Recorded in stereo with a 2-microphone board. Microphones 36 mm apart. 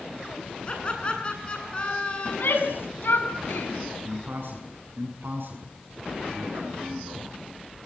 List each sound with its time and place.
0.7 s laughter: 30° left (ahead or behind), 9 m; by 2.7 s 35° left (ahead or behind), 8 m
2.2 s a shout: 75° left (ahead or behind), 6.5 m
4.0 s a man speaking: 70° right (ahead or behind), 7.5 m